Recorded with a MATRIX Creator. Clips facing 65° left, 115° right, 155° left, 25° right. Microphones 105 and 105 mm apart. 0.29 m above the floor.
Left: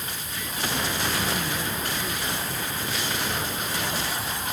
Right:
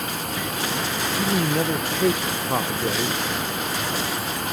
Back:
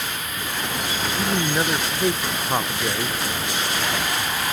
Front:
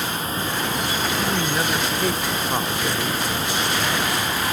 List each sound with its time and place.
0.0 s running water: 80° right
1.2 s a man speaking: 125° right